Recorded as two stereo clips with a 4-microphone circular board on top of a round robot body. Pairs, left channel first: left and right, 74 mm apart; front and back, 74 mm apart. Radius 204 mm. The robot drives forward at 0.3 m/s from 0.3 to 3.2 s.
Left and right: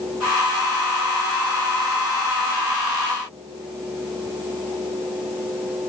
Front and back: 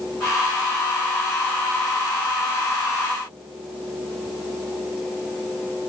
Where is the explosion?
I don't hear an explosion.